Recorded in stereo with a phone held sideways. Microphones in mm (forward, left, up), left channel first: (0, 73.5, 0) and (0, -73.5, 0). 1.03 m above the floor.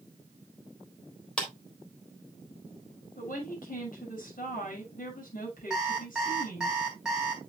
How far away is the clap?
About 3.5 m.